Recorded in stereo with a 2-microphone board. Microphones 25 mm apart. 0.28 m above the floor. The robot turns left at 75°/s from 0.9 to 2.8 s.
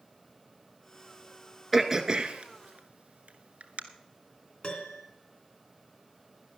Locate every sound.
1.7 s throat clearing: 5° right (ahead or behind), 0.9 m; by 3.8 s 85° right, 0.9 m
4.6 s a piano: 50° left (ahead or behind), 3 m